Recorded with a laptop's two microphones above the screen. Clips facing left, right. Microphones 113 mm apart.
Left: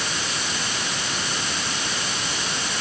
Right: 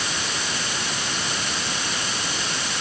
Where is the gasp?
I don't hear a gasp.